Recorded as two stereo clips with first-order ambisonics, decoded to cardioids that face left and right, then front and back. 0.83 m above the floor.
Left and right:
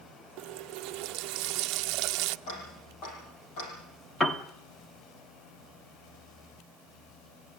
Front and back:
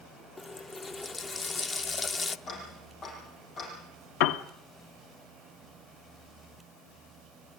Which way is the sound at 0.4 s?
70° right.